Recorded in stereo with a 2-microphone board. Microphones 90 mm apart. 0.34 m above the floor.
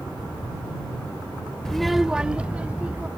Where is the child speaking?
5° left (ahead or behind); by 3.1 s 15° right (ahead or behind).